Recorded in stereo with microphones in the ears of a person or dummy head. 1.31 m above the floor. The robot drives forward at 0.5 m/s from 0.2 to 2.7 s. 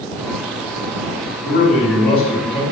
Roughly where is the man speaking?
Left.